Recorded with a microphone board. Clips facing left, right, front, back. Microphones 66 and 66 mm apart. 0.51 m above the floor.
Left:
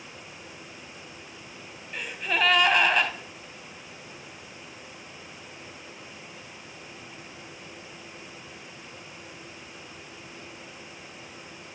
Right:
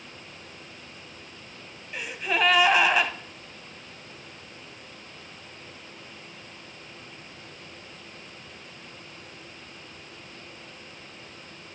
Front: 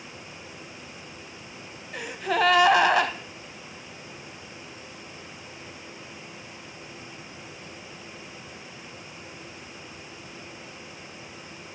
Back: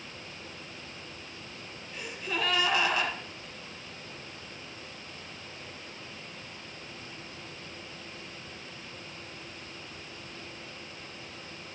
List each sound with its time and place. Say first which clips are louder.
1.9 s a gasp: right 1 dB, front 9 dB; 5° right, 0.7 m